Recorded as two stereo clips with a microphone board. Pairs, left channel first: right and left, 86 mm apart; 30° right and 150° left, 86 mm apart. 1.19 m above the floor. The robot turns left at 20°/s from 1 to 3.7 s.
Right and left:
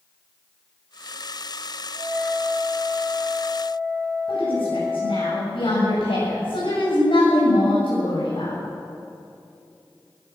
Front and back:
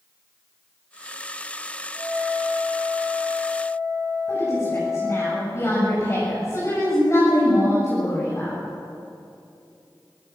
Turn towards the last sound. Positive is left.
turn(degrees=-90)